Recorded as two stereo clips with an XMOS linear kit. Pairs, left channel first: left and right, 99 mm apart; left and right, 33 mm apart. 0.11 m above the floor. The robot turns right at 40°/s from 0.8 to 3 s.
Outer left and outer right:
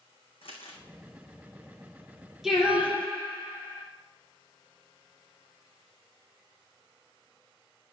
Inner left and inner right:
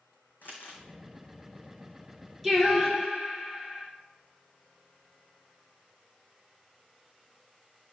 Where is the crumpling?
65° left (ahead or behind), 2.5 m.